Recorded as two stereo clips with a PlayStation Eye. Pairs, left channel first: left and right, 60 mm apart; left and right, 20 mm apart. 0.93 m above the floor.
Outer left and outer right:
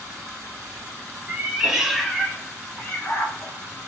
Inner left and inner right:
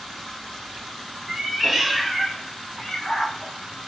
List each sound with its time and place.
1.3 s a cat meowing: 20° right (ahead or behind), 0.9 m; by 3.9 s 45° left (ahead or behind), 1.2 m